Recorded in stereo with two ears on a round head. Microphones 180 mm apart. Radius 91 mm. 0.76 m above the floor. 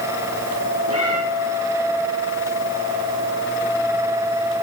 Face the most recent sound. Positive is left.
turn(degrees=-75)  # may be behind; listen again after turning